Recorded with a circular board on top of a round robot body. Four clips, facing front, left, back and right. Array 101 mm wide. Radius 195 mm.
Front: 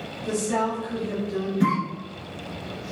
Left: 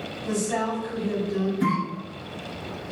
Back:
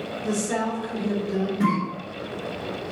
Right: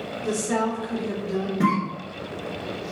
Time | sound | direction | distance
0.2 | a woman speaking | 120° right | 3 m
1.6 | a cough | 105° right | 3.5 m